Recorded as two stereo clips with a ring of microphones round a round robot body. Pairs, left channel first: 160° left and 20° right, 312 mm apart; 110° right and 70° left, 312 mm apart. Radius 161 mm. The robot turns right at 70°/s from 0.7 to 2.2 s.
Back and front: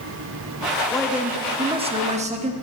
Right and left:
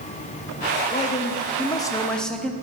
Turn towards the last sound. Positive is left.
turn(degrees=-30)